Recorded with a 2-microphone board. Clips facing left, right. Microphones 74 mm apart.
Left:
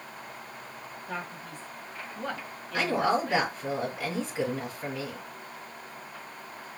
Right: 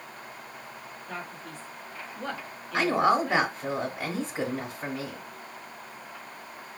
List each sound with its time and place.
1.1 s a man speaking: 20° left (ahead or behind), 1.0 m; by 3.5 s 10° right (ahead or behind), 1.2 m
2.7 s a woman speaking: 30° right (ahead or behind), 1.2 m